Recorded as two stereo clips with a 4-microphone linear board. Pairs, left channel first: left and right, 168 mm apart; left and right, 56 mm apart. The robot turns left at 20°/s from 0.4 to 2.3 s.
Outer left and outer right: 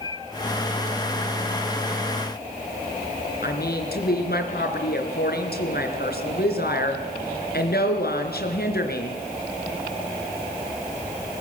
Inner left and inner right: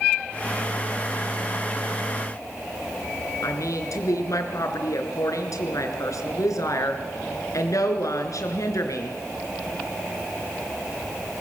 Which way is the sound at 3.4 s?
75° left (ahead or behind).